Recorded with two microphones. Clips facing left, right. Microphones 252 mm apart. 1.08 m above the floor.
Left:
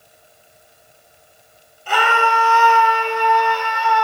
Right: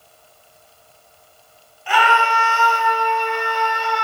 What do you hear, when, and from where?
1.9 s a scream: 45° left (ahead or behind), 1.4 m; by 4.0 s 65° left (ahead or behind), 1.8 m